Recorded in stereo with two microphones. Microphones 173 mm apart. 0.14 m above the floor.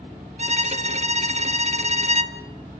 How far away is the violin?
About 0.8 m.